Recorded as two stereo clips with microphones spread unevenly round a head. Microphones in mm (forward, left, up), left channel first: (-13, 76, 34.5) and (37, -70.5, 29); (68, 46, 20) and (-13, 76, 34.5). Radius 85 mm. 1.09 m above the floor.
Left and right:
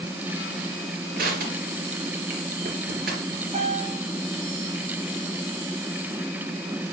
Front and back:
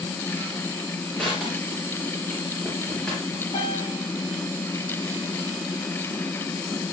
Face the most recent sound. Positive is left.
turn(degrees=-25)